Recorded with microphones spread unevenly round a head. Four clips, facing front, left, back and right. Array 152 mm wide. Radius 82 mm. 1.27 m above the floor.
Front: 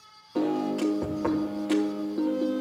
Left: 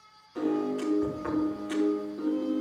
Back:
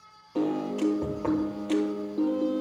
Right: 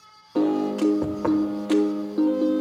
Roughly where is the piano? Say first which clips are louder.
Right 7 dB, front 1 dB; right.